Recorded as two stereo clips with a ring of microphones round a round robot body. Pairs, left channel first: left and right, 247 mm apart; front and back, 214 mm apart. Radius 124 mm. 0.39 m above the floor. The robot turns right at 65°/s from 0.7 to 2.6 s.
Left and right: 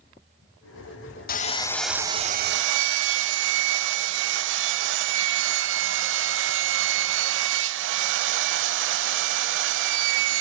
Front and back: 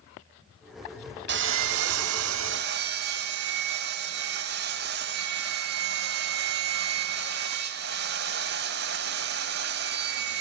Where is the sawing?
145° left, 0.8 m; by 10.4 s 130° right, 0.8 m.